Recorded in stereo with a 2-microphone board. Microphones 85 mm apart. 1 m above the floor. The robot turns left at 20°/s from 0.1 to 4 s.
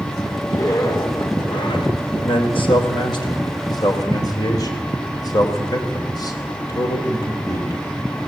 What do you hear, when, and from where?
0.4 s a zipper: 140° left, 2.5 m; by 1.9 s 110° left, 2.5 m
2.2 s a man speaking: 85° left, 3.5 m; by 7.8 s 50° left (ahead or behind), 3.5 m